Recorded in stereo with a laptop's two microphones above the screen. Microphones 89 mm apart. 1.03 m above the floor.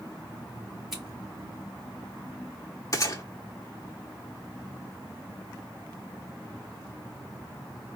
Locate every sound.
0.9 s scissors: centre (ahead or behind), 2.5 m
2.9 s a gunshot: 40° left (ahead or behind), 0.9 m